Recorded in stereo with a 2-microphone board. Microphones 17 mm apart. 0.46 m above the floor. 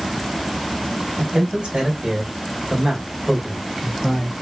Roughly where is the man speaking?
Right.